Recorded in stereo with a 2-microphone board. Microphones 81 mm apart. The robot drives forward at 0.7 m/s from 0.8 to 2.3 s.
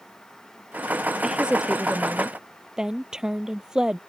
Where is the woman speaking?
10° right (ahead or behind).